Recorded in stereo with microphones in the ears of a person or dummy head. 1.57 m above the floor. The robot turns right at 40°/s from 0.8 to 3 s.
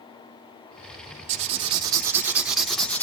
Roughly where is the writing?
Ahead right.